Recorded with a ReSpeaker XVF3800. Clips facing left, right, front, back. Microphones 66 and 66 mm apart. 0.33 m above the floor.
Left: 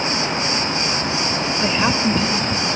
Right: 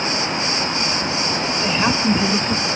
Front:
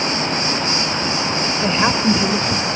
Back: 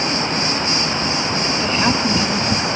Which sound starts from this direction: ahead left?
A woman speaking, at 1.6 s.